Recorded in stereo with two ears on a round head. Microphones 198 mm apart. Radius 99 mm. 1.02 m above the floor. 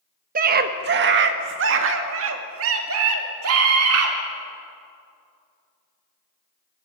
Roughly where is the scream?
Right.